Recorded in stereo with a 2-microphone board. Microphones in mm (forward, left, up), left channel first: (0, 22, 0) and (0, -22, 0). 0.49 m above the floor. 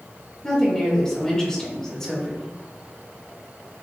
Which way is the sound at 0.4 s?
15° left (ahead or behind).